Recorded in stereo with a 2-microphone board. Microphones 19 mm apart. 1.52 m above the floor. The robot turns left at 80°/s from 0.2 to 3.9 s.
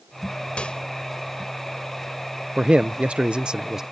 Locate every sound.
0.6 s a microwave: 75° left (ahead or behind); by 0.8 s 55° left (ahead or behind)
2.6 s a man speaking: 50° right; by 3.8 s 150° right